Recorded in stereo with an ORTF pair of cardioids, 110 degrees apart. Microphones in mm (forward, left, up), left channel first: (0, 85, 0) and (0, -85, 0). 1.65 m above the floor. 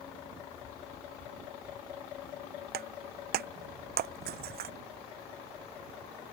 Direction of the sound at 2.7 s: 70° right.